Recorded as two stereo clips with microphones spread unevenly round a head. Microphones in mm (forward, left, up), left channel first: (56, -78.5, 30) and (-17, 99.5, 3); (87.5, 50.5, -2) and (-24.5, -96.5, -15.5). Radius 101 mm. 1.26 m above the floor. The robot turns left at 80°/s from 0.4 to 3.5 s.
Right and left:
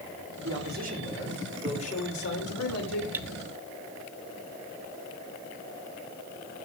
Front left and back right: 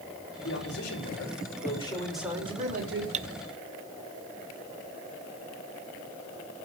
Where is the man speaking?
100° left, 4.5 m; by 3.0 s 110° right, 4.5 m.